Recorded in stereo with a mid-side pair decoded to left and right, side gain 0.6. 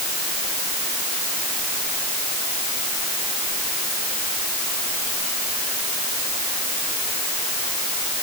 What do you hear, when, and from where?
Only background noise.